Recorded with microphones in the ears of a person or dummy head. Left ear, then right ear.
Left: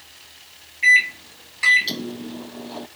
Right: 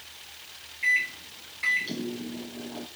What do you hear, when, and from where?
0.8 s a microwave: 35° left (ahead or behind), 0.6 m